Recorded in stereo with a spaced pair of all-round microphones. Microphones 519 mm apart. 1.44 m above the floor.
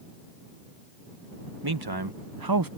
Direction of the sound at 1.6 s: 45° right (ahead or behind).